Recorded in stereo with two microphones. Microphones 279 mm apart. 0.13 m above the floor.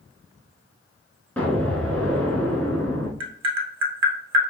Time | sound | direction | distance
1.4 | an explosion | 5° left (ahead or behind) | 1.2 m
3.2 | tapping | 65° right (ahead or behind) | 1.0 m